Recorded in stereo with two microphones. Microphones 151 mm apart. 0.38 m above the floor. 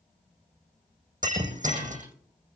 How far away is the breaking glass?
About 8 m.